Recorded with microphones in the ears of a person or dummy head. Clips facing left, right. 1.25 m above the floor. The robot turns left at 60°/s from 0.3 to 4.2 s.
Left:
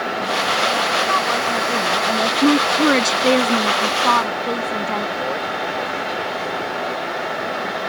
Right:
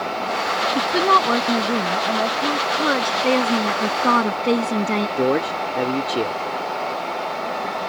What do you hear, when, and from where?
0.8 s a woman speaking: 95° right; by 2.3 s 170° left
2.4 s a woman speaking: 70° left; by 5.1 s 40° right
5.2 s a man speaking: 65° right (ahead or behind)